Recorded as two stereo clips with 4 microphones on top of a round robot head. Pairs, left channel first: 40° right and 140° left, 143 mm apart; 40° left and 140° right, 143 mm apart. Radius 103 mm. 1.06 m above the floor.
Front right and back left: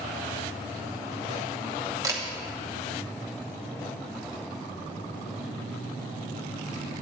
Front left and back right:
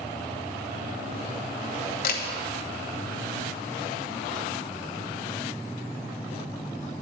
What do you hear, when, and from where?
2.0 s a camera shutter: 70° left, 1.0 m